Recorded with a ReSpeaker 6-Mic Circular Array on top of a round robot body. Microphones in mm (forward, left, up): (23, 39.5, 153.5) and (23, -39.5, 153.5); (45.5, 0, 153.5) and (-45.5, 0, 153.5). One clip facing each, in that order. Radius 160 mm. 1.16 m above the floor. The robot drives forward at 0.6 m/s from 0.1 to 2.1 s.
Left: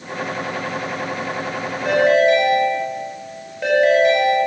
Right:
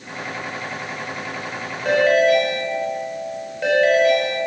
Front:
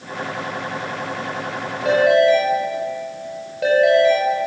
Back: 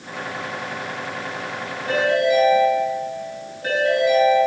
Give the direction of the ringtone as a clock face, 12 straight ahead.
12 o'clock.